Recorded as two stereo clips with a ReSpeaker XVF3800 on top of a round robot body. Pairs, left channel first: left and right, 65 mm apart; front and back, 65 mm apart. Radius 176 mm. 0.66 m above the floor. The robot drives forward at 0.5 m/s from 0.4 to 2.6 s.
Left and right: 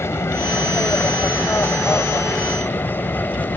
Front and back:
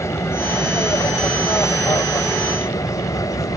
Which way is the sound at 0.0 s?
40° left.